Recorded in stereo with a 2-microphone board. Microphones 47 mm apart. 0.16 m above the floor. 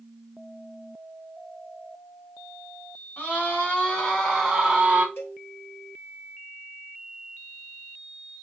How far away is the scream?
About 2.0 m.